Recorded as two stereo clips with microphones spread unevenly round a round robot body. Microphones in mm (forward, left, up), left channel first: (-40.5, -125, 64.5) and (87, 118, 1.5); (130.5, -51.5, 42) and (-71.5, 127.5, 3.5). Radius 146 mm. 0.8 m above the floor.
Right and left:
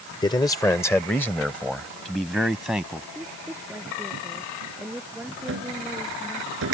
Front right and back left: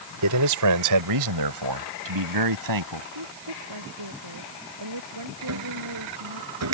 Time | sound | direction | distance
0.2 | a man speaking | 165° left | ?
3.1 | a woman speaking | 150° left | ?
5.5 | a cupboard door | 110° left | ?